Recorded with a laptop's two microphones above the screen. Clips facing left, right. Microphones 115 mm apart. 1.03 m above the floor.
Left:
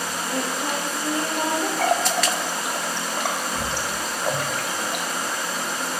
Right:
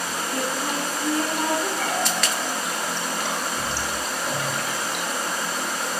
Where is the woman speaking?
25° left (ahead or behind), 1.0 m.